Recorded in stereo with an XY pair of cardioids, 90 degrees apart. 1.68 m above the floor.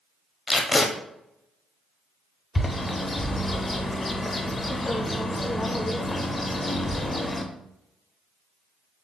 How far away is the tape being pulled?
About 0.6 m.